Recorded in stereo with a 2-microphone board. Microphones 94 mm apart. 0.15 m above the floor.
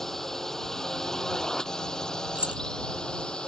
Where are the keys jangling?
15° right (ahead or behind).